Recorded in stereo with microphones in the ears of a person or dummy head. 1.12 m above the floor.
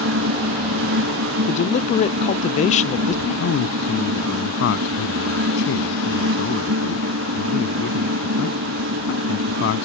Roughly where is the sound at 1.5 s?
Left.